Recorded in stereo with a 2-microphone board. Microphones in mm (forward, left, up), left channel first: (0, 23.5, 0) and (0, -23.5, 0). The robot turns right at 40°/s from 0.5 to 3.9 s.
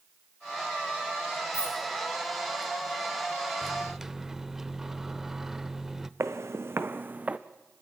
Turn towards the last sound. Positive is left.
turn(degrees=-30)  # may be behind; listen again after turning